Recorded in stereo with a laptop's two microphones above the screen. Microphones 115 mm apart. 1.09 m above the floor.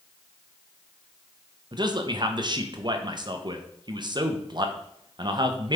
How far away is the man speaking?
About 0.8 m.